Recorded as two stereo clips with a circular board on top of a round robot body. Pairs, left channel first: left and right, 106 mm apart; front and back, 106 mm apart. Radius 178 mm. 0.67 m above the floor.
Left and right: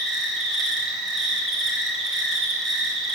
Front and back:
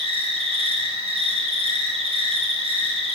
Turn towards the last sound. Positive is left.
turn(degrees=180)